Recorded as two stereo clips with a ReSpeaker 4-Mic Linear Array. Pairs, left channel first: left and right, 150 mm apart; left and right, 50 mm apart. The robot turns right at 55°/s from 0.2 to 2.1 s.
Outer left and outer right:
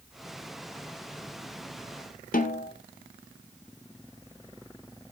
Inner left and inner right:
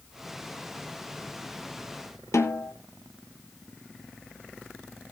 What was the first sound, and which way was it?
A snare drum, 70° left (ahead or behind).